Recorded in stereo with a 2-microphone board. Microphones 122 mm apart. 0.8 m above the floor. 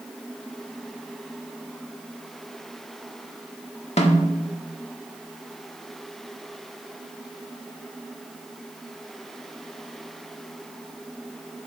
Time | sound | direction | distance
4.0 | a snare drum | 60° left (ahead or behind) | 1.4 m